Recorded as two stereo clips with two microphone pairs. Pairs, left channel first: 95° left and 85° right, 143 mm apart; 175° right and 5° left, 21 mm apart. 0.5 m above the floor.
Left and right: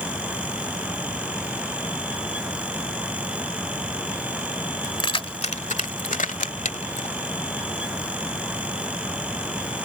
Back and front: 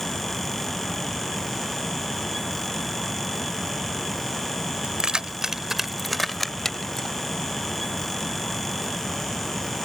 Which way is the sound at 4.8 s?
40° left.